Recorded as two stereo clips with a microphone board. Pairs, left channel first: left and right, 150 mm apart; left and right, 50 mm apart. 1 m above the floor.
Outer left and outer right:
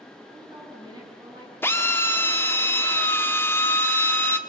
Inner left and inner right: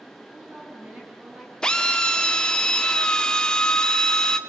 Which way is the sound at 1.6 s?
15° left (ahead or behind).